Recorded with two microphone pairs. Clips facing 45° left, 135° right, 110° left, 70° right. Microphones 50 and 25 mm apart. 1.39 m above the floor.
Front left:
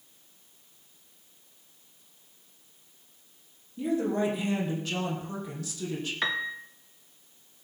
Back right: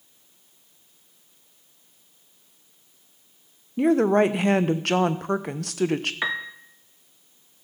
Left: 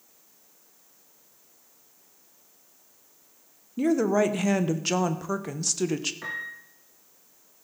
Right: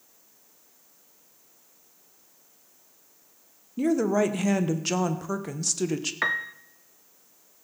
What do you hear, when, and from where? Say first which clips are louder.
3.8 s a woman speaking: back right 9 dB, left 1 dB; 160° right, 1.0 m
6.2 s a piano: back right 2 dB, right 7 dB; 60° right, 0.9 m